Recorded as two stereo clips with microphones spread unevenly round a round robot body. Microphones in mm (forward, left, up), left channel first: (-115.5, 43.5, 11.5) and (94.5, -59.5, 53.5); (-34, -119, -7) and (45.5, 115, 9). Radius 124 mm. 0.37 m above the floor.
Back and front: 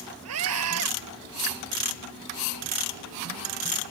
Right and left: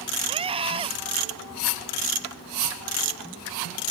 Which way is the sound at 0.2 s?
Straight ahead.